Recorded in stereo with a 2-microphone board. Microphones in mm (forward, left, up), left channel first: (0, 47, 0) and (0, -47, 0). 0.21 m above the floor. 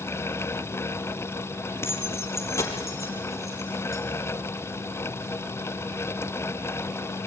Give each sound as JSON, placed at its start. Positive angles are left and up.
{"t": 1.8, "sound": "keys jangling", "side_deg": 25, "distance_m": 3.5}